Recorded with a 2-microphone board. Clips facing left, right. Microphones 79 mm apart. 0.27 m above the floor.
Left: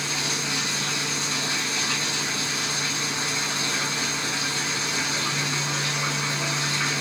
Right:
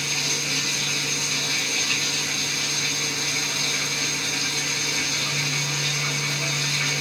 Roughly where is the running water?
Left.